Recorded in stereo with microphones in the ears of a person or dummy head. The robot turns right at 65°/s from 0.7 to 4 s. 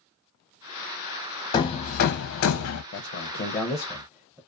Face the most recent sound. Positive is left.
turn(degrees=-5)  # may be behind; listen again after turning